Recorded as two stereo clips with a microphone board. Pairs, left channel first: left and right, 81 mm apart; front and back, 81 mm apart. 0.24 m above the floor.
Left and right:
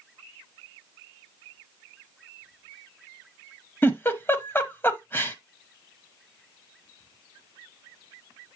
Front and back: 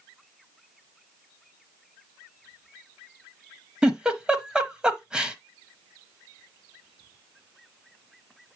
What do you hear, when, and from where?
3.8 s a giggle: 115° left, 1.0 m